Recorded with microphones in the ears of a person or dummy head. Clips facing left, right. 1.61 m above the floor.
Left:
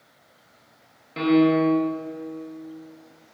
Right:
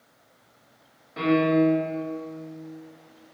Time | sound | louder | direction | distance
1.2 | a piano | left 2 dB | 45° left (ahead or behind) | 0.7 m